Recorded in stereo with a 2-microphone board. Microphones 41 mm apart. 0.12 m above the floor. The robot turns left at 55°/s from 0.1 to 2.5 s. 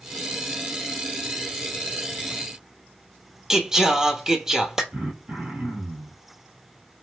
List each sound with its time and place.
3.5 s singing: 15° right (ahead or behind), 0.7 m
4.9 s throat clearing: 35° right (ahead or behind), 1.6 m